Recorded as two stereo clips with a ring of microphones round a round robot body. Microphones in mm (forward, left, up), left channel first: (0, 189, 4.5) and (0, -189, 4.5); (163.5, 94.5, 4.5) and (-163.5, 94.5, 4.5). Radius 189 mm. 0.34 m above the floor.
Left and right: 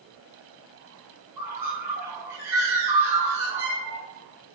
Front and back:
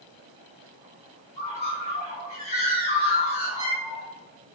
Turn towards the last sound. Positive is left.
turn(degrees=-20)